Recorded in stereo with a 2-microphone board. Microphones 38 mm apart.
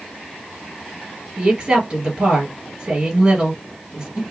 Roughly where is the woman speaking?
Right.